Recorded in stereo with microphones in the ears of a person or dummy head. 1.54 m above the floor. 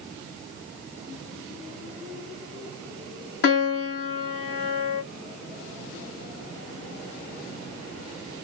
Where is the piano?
60° left (ahead or behind), 1.6 m.